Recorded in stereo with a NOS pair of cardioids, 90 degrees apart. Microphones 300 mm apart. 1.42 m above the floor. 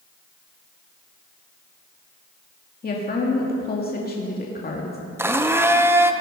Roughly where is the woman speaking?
Ahead left.